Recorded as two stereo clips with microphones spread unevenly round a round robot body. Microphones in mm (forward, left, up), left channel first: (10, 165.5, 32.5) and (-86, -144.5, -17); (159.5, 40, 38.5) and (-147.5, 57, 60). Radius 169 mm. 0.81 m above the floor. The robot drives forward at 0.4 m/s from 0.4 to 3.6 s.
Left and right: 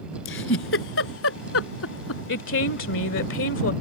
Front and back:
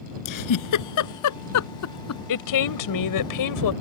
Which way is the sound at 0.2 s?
20° left.